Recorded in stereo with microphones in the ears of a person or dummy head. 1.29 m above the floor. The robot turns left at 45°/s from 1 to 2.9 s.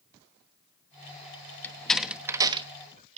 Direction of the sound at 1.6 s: 15° left (ahead or behind).